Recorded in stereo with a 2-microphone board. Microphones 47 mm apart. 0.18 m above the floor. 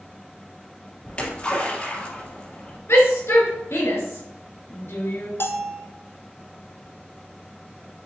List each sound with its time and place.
1.1 s a splash: 25° left (ahead or behind), 3 m
2.9 s a shout: 65° left (ahead or behind), 3 m
5.4 s a bell: 55° left (ahead or behind), 0.8 m